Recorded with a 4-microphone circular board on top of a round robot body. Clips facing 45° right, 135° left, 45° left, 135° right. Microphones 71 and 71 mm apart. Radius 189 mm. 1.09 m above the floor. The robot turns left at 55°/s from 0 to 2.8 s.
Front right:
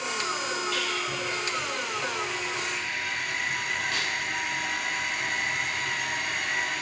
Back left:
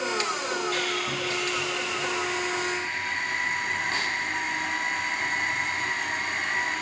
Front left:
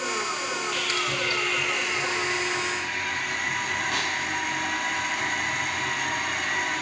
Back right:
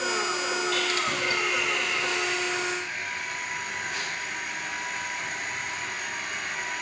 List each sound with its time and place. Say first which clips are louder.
0.7 s sawing: back left 2 dB, back right 1 dB; 175° right, 3 m; by 6.8 s 70° left, 3 m